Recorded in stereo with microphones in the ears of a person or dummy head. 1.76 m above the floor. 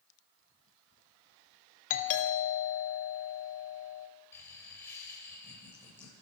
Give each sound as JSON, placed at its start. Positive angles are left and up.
{"t": 1.9, "sound": "a doorbell", "side_deg": 45, "distance_m": 2.5}
{"t": 4.3, "sound": "laughter", "side_deg": 15, "distance_m": 8.0}